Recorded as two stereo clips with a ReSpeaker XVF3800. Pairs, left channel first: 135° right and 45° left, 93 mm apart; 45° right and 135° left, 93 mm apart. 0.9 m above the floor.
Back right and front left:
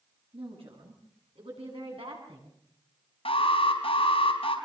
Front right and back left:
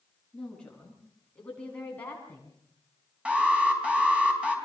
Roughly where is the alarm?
Behind right.